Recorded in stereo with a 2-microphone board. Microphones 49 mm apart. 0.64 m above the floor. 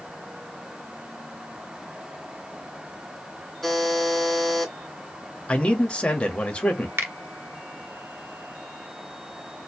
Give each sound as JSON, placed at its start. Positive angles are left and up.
{"t": 3.6, "sound": "a buzzer", "side_deg": 5, "distance_m": 2.5}
{"t": 5.5, "sound": "a man speaking", "side_deg": 25, "distance_m": 1.1}
{"t": 7.0, "sound": "a finger snap", "side_deg": -60, "distance_m": 0.9}